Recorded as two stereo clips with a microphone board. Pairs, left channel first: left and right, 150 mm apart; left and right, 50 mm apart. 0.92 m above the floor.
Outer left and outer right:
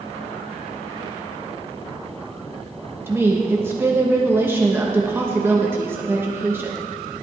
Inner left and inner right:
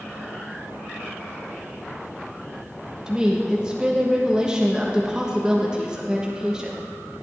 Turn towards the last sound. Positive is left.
turn(degrees=-15)  # may be behind; listen again after turning